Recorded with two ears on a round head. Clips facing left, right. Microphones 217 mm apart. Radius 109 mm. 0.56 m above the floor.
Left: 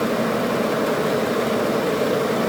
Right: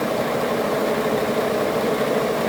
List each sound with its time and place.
Only background noise.